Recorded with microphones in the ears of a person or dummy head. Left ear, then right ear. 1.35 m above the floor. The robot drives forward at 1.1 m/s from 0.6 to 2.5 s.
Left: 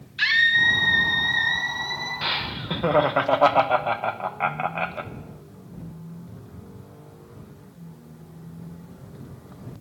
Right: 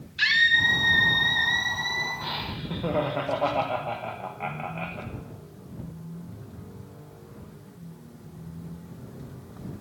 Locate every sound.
0.2 s a scream: 20° left (ahead or behind), 1.6 m; by 2.1 s 10° left (ahead or behind), 3 m
2.2 s laughter: 75° left (ahead or behind), 1.0 m; by 5.1 s 60° left (ahead or behind), 1.1 m